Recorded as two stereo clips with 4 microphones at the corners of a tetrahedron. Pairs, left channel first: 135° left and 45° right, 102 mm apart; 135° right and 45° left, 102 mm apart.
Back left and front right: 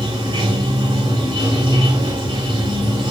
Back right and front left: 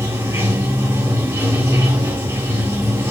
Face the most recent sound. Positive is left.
turn(degrees=-20)